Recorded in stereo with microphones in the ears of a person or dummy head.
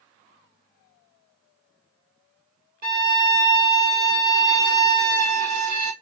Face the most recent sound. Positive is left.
turn(degrees=-55)  # may be behind; listen again after turning